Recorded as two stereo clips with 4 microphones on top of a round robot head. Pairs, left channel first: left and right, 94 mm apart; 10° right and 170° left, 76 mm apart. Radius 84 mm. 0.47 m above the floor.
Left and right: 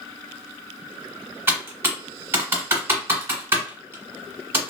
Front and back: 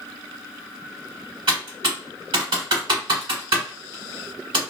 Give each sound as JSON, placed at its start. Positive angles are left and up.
{"t": 1.5, "sound": "typing on a keyboard", "azimuth_deg": -155, "distance_m": 1.1}